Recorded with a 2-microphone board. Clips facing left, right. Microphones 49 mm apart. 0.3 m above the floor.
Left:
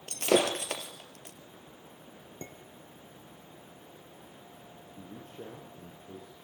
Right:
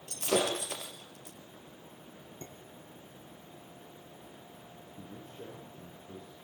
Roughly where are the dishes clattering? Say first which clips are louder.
Left 4 dB; left.